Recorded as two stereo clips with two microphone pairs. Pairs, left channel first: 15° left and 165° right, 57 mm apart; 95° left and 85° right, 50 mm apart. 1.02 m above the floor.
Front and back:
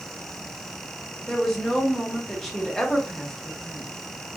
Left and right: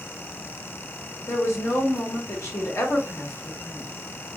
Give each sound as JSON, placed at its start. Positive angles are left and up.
{"t": 1.3, "sound": "a woman speaking", "azimuth_deg": 95, "distance_m": 1.0}